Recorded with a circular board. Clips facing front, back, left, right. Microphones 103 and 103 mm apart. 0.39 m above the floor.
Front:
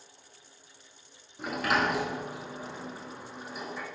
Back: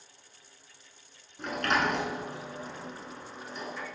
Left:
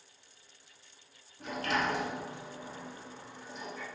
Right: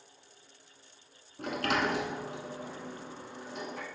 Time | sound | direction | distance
1.4 | a sliding door | 80° right | 0.7 m